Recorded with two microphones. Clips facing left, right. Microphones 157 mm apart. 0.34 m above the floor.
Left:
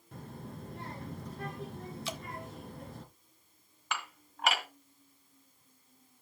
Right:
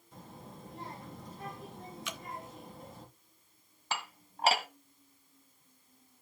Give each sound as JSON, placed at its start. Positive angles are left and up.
{"t": 0.1, "sound": "a child speaking", "side_deg": 70, "distance_m": 2.5}
{"t": 2.0, "sound": "dripping", "side_deg": 30, "distance_m": 0.6}
{"t": 3.9, "sound": "dishes clattering", "side_deg": -35, "distance_m": 1.5}